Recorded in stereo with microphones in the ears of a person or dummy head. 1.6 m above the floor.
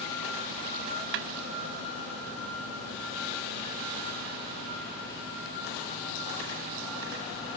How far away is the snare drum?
About 0.6 m.